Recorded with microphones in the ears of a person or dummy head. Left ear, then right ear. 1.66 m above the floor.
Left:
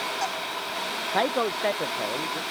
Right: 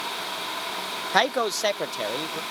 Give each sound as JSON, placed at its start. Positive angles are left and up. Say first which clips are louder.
{"t": 1.1, "sound": "a man speaking", "louder": "right 3 dB", "side_deg": -65}